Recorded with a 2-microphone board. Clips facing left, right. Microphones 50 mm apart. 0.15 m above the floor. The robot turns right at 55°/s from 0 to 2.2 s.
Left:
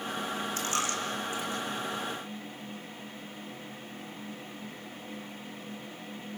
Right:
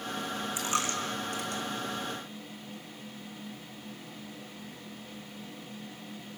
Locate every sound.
0.6 s a dropped coin: 15° right (ahead or behind), 3.5 m; by 1.6 s 70° right (ahead or behind), 3.5 m